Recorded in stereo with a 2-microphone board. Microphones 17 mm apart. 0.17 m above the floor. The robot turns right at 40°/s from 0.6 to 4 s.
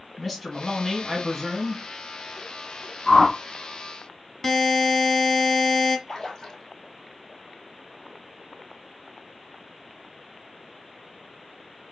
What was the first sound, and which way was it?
A man speaking, 5° right (ahead or behind).